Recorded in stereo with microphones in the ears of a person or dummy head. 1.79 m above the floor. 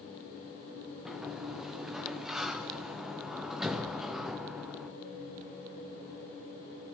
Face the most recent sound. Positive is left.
turn(degrees=0)  # may be behind; listen again after turning